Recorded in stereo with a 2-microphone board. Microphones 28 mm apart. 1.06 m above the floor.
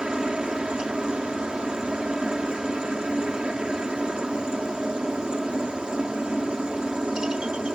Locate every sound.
0.0 s a helicopter: 30° right (ahead or behind)